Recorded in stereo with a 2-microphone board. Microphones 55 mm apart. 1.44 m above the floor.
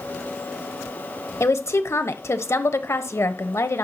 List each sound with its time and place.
1.4 s a woman speaking: 60° left (ahead or behind), 1.0 m